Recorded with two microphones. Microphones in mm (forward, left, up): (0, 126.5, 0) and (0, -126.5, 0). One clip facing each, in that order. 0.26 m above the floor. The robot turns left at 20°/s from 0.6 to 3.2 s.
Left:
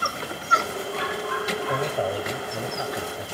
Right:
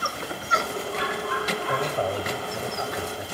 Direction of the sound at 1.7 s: 10° left (ahead or behind).